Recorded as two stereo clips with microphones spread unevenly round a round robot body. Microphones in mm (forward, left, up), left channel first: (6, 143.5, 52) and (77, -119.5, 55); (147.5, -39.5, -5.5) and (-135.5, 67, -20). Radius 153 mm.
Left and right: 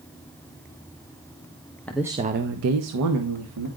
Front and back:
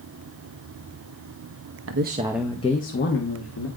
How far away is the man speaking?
About 0.7 m.